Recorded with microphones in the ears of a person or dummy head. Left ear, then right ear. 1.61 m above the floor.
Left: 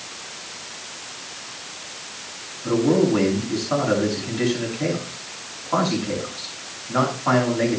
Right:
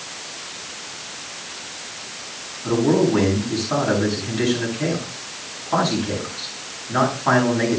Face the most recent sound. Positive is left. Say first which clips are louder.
# right 1 dB
turn(degrees=5)  # may be behind; listen again after turning